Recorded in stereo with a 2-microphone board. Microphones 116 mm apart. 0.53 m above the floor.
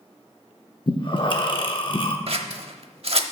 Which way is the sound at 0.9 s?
45° left (ahead or behind).